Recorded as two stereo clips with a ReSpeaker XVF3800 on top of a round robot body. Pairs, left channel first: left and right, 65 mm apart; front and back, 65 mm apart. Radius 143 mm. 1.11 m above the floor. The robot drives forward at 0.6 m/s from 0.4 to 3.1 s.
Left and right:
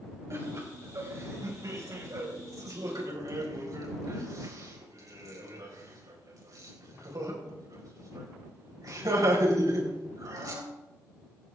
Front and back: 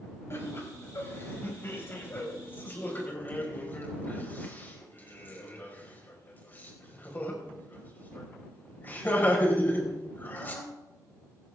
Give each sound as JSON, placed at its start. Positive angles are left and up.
{"t": 0.3, "sound": "laughter", "azimuth_deg": -45, "distance_m": 6.0}